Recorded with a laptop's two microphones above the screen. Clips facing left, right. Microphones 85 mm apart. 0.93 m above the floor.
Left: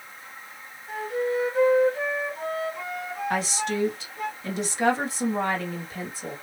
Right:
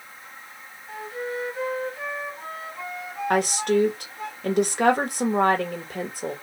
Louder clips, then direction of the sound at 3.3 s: Right 7 dB; 55° right (ahead or behind).